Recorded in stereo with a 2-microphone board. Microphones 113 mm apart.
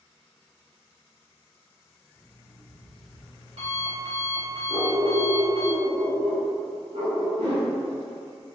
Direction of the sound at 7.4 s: 65° right (ahead or behind).